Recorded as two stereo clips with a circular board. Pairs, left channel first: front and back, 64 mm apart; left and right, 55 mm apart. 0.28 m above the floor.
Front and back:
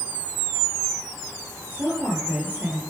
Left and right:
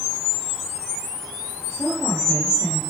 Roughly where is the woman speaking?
Behind left.